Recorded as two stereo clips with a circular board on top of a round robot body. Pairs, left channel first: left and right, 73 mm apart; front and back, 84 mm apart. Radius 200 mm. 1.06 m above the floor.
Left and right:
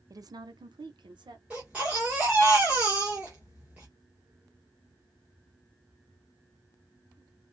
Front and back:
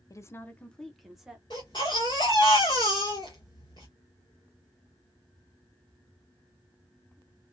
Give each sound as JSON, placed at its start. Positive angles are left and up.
{"t": 0.1, "sound": "a woman speaking", "azimuth_deg": -50, "distance_m": 0.7}
{"t": 1.5, "sound": "a baby crying", "azimuth_deg": -20, "distance_m": 0.6}